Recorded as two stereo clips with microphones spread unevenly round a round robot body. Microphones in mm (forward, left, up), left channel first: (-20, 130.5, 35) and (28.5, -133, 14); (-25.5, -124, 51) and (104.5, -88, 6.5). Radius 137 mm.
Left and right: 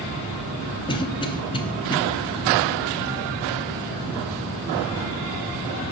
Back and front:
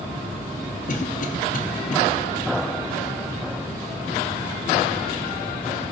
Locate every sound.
0.9 s a cough: 170° left, 0.8 m